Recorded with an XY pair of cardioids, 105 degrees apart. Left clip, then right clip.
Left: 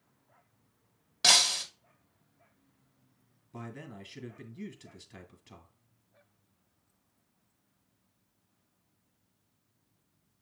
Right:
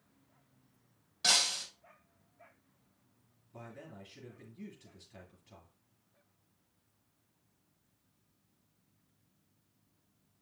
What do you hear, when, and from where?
1.2 s breaking glass: 65° left, 1.9 m
3.5 s a man speaking: 60° left, 3 m